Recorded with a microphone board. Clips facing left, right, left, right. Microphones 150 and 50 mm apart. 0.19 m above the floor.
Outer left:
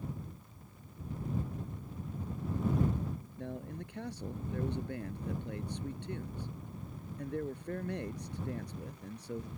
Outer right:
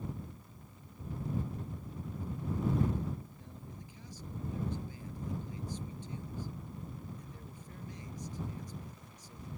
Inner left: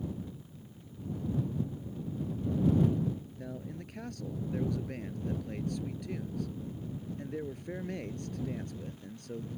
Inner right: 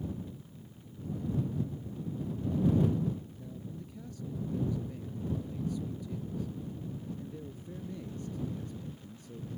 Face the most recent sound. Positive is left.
turn(degrees=70)  # may be behind; listen again after turning